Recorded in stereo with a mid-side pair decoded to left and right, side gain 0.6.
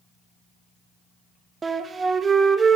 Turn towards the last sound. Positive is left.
turn(degrees=-30)